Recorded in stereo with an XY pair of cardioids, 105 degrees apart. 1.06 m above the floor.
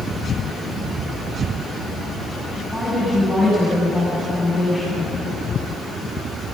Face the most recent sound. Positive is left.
turn(degrees=0)